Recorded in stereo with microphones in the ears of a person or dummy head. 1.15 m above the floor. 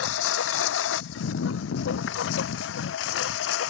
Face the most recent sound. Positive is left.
turn(degrees=75)  # may be behind; listen again after turning